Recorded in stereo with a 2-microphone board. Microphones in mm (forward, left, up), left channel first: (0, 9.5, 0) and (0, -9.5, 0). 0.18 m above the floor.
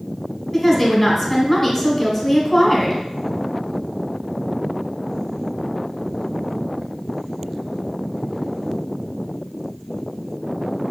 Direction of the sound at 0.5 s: 15° left (ahead or behind).